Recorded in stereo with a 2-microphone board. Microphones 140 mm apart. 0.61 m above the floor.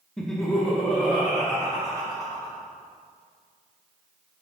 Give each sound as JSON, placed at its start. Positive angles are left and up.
{"t": 0.2, "sound": "laughter", "side_deg": 5, "distance_m": 0.8}